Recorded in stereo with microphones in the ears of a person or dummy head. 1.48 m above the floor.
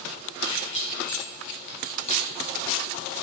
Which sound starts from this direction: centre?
Keys jangling, at 0.4 s.